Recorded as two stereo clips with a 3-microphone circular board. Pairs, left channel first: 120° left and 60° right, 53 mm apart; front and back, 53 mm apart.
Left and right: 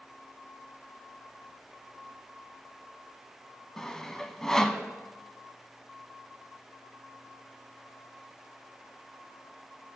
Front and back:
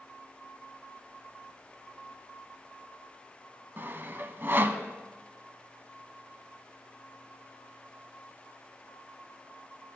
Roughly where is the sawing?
Behind.